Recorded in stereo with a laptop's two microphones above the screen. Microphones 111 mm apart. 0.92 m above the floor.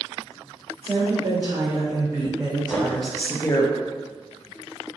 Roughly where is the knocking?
Centre.